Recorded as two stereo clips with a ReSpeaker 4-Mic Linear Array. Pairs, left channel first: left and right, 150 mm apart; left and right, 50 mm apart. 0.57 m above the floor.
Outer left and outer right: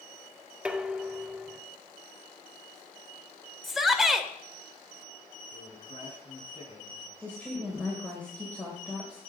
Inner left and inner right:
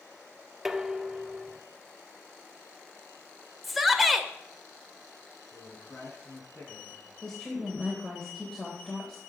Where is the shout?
Centre (ahead or behind), 1.9 m.